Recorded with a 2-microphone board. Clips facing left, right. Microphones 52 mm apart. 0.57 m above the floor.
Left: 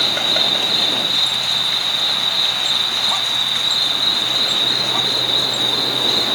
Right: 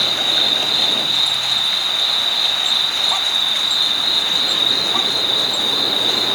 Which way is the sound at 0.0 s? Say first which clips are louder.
Even; 70° left (ahead or behind).